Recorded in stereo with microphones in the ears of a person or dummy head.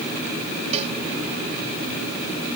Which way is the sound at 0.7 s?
35° right (ahead or behind).